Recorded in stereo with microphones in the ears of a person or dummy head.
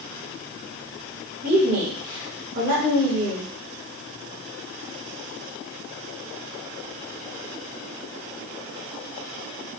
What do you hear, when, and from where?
1.4 s a woman speaking: 50° right (ahead or behind), 1.4 m